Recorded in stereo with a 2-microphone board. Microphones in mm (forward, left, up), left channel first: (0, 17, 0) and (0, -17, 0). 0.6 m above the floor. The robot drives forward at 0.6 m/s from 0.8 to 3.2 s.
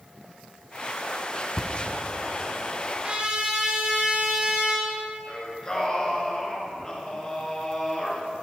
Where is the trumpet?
35° right (ahead or behind), 1.6 m.